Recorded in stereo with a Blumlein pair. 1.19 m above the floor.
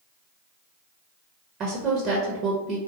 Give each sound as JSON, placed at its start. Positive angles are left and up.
{"t": 1.6, "sound": "a woman speaking", "azimuth_deg": -30, "distance_m": 0.8}